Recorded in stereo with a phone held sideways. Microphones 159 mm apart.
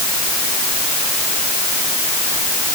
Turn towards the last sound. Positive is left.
No sound to turn to.